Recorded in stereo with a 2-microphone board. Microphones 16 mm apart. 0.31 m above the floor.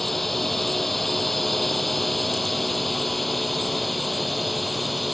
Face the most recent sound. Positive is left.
turn(degrees=0)  # may be behind; listen again after turning